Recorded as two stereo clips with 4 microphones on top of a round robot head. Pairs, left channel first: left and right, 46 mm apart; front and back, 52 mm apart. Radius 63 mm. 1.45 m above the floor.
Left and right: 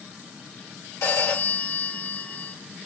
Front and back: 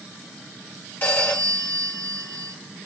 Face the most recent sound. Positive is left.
turn(degrees=55)